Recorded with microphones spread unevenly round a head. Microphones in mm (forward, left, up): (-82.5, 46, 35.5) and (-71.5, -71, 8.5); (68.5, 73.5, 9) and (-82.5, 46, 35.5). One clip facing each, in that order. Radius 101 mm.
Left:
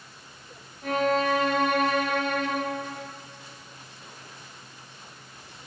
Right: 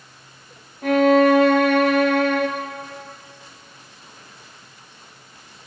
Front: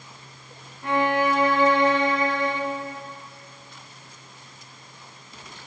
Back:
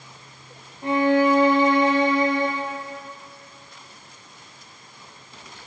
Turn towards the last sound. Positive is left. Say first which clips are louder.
# right 10 dB, back 4 dB
turn(degrees=-100)